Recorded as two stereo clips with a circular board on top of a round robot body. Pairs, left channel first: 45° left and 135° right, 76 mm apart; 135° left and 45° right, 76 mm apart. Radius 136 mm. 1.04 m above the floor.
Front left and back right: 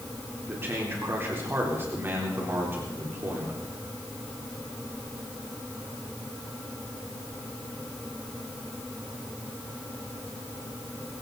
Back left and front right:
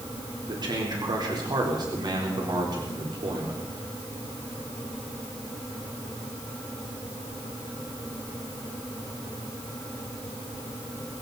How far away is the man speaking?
About 4 m.